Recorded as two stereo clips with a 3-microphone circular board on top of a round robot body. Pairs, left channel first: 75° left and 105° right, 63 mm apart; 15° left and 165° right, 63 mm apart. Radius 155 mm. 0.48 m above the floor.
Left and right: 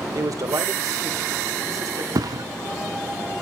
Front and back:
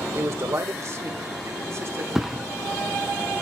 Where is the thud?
80° right, 0.8 m.